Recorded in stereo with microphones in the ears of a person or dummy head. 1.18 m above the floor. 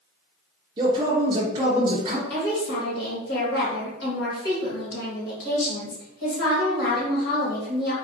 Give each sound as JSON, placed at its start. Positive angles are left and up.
{"t": 0.8, "sound": "a man speaking", "side_deg": -20, "distance_m": 0.5}
{"t": 2.3, "sound": "a woman speaking", "side_deg": 65, "distance_m": 1.5}